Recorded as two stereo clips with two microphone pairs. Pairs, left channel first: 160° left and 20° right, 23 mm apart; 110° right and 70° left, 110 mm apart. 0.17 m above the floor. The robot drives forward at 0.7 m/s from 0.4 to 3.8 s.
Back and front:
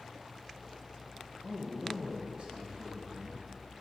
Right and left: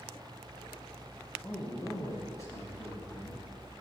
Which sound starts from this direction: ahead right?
A man speaking, at 1.4 s.